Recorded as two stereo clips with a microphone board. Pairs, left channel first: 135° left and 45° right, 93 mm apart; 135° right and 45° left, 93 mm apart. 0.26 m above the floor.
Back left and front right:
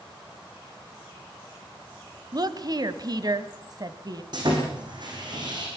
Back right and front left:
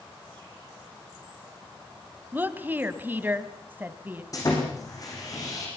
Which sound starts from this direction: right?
Sawing, at 4.3 s.